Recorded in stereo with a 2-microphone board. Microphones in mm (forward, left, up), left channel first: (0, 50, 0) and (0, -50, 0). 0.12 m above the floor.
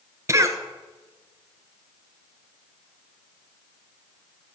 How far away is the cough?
About 1.4 m.